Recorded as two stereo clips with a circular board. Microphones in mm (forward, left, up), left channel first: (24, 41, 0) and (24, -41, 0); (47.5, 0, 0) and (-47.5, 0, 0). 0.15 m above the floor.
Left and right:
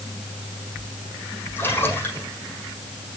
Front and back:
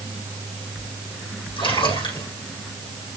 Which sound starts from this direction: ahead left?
A splash, at 1.6 s.